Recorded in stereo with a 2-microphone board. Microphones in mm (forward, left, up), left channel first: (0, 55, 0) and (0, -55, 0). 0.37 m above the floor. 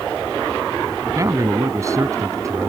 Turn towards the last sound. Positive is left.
turn(degrees=-30)  # may be behind; listen again after turning